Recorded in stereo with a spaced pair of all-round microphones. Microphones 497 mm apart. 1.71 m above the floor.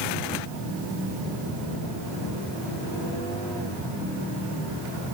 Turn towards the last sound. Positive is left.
No sound to turn to.